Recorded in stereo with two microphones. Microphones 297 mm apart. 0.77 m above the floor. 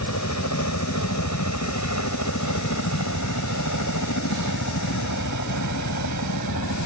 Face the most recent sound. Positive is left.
turn(degrees=75)  # may be behind; listen again after turning